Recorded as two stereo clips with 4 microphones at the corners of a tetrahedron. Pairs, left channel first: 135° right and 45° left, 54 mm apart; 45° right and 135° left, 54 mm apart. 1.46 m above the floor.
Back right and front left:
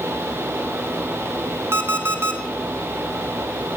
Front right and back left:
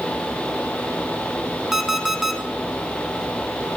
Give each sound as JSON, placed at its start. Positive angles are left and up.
{"t": 1.7, "sound": "an alarm clock", "azimuth_deg": 55, "distance_m": 1.1}